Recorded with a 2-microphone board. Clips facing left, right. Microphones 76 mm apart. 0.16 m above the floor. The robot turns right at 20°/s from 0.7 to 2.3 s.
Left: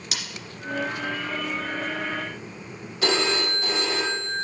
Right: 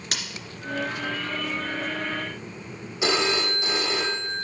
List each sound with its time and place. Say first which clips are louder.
0.1 s scissors: right 2 dB; 50° right (ahead or behind), 2.5 m
3.0 s a phone ringing: even; 15° right (ahead or behind), 4 m